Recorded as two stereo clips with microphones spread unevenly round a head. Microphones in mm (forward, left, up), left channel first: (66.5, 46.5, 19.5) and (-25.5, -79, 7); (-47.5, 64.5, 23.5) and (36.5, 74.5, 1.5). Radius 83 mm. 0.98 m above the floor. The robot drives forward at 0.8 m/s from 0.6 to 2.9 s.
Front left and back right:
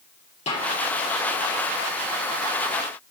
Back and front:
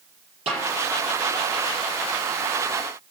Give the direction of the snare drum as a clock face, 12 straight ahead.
12 o'clock.